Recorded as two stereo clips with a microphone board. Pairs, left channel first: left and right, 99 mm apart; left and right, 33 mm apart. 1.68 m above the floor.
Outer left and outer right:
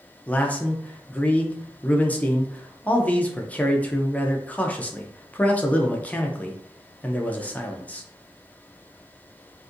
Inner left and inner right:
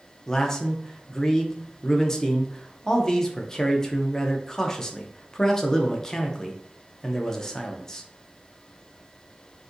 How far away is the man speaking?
About 0.6 m.